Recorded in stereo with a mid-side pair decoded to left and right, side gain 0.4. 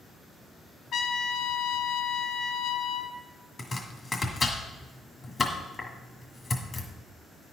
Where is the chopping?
40° left, 1.7 m.